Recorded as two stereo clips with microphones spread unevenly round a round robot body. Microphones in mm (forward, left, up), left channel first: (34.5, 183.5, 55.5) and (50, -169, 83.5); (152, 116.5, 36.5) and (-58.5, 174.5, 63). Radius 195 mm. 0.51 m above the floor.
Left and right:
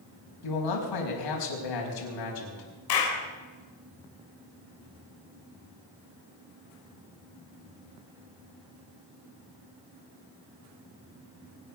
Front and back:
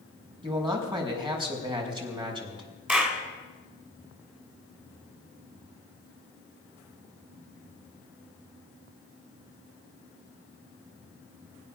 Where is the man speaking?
95° left, 4.5 m.